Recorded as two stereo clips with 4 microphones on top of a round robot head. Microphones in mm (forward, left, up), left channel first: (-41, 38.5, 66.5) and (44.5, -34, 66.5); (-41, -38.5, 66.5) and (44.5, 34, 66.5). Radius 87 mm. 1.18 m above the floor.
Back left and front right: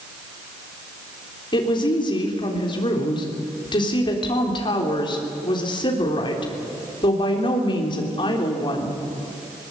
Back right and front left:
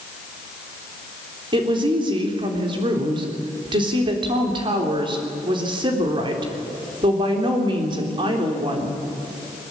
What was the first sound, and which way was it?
A woman speaking, 90° left.